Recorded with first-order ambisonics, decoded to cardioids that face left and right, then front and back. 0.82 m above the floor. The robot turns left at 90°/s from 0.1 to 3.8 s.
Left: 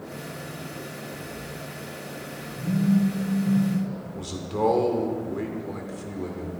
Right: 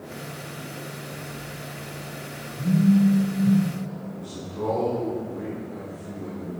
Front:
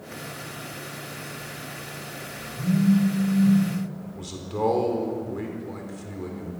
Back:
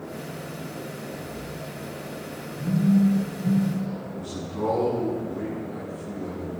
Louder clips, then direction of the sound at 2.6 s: Right 3 dB, even; 5° right.